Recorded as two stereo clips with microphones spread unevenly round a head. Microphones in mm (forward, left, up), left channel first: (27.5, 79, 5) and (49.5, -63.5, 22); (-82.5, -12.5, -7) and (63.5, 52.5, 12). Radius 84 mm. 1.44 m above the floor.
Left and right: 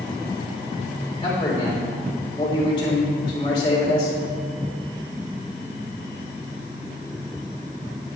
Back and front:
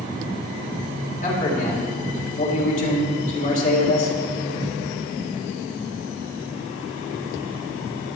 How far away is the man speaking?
About 3.5 m.